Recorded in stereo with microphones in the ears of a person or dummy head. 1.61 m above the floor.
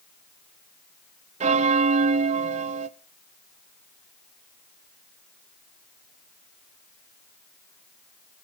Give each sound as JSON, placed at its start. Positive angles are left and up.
{"t": 1.4, "sound": "a bell", "side_deg": -40, "distance_m": 0.6}